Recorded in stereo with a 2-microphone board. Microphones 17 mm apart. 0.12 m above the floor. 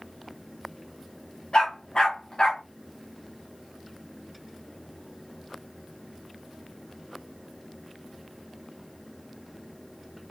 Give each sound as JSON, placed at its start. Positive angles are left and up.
{"t": 1.5, "sound": "a dog barking", "side_deg": 60, "distance_m": 4.5}